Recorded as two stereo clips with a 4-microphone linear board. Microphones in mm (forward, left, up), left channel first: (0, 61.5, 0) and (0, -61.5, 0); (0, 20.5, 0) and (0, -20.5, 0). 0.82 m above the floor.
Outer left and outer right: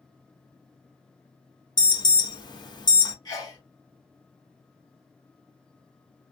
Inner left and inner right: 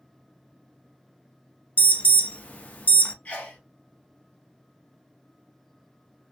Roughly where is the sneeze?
Left.